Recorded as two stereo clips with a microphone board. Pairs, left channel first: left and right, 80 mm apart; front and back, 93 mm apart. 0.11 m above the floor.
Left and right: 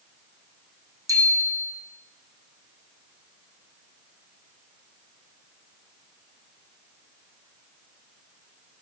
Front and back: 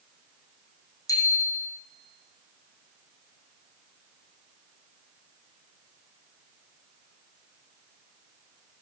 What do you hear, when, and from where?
1.1 s a bicycle bell: 50° right, 3.5 m